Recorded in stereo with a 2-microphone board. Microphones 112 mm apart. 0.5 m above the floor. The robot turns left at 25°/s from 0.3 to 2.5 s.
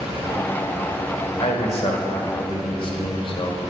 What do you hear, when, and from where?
1.4 s a man speaking: 65° left (ahead or behind), 1.5 m; by 3.6 s 50° left (ahead or behind), 1.5 m